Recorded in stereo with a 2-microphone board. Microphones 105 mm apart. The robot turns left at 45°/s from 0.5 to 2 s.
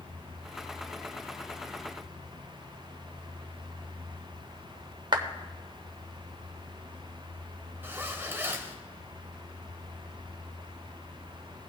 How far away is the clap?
About 0.8 m.